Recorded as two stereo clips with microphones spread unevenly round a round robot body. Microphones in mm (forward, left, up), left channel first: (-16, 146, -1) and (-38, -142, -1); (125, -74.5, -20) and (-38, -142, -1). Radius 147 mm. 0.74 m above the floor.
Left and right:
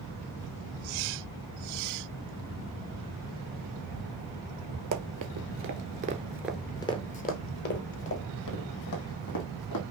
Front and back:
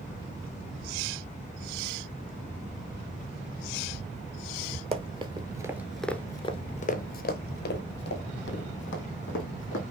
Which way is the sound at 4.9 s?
115° right.